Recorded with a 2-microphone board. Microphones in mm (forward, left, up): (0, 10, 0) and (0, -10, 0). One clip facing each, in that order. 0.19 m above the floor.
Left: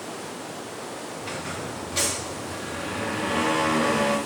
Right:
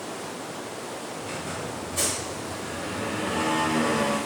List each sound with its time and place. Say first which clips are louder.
1.2 s a squeak: left 2 dB; 90° left, 3.5 m